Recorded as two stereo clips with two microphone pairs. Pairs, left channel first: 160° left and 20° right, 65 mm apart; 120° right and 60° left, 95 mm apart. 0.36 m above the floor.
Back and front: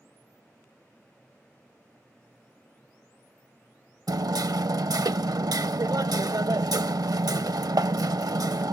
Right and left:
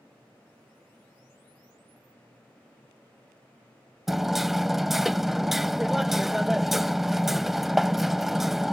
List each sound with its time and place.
4.1 s hammering: 25° right